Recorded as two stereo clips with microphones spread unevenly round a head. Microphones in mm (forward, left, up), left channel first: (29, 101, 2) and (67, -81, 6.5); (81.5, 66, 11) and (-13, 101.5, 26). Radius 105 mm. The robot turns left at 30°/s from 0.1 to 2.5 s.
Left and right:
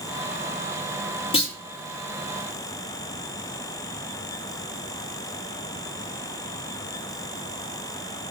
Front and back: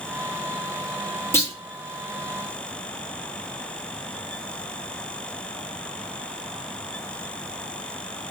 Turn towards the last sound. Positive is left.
turn(degrees=10)